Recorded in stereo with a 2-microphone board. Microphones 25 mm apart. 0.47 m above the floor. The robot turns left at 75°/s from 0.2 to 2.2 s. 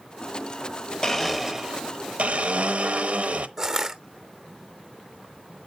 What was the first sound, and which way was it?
A blender, 20° left.